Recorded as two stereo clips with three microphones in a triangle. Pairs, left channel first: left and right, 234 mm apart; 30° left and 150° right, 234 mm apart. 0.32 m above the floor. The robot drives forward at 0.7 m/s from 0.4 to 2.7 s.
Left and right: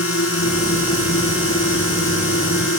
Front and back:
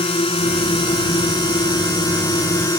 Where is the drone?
95° left; by 2.8 s 105° left.